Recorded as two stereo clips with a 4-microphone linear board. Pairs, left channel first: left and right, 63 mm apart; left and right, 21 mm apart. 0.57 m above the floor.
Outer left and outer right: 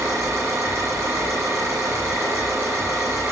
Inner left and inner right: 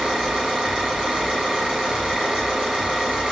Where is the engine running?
40° right (ahead or behind), 7 m.